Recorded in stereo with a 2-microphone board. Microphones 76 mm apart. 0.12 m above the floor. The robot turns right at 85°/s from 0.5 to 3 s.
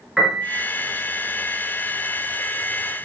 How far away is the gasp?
I don't hear a gasp.